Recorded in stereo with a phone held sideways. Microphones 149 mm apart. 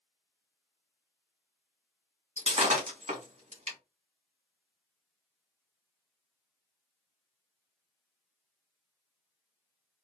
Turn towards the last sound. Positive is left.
turn(degrees=-45)  # may be behind; listen again after turning